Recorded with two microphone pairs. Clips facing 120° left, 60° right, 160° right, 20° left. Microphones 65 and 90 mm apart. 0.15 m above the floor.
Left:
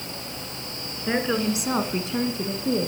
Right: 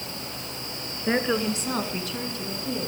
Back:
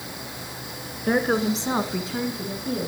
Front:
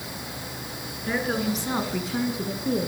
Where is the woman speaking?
135° right, 1.7 m; by 2.9 s 75° left, 2.0 m.